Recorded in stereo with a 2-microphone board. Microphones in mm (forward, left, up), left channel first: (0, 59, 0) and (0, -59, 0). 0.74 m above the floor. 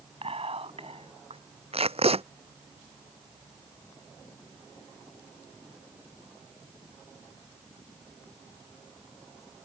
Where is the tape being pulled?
55° right (ahead or behind).